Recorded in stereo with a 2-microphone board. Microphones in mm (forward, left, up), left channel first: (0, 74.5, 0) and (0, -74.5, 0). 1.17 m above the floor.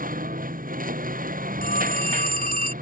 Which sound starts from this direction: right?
A lawn mower, at 0.0 s.